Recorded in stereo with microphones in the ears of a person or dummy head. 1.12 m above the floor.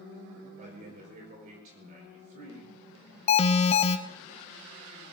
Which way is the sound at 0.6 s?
45° right (ahead or behind).